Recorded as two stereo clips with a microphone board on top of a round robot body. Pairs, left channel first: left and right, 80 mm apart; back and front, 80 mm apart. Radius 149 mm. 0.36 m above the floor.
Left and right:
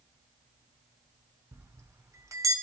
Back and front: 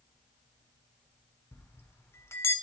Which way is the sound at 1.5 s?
130° right.